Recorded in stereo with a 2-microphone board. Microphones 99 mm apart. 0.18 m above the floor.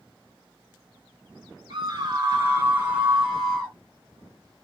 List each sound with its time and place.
1.7 s a scream: 45° right (ahead or behind), 1.4 m; by 3.7 s 10° left (ahead or behind), 1.0 m